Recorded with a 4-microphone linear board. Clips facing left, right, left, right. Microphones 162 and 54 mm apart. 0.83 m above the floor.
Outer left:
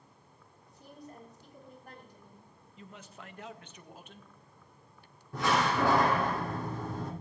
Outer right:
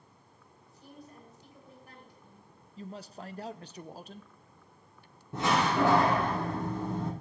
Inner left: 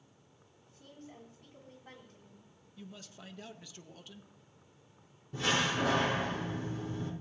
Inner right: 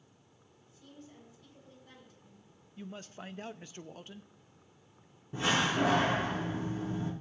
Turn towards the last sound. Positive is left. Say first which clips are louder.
# outer right 2 dB, inner right 2 dB
turn(degrees=-25)  # may be behind; listen again after turning